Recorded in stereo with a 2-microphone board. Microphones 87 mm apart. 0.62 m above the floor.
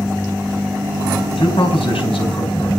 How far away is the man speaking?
About 3.5 m.